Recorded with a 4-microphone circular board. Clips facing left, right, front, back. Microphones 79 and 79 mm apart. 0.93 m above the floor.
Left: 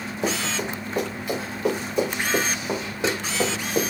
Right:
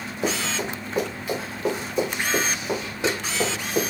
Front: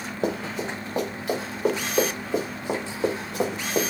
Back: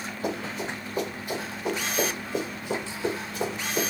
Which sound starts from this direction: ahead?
Running footsteps, at 0.2 s.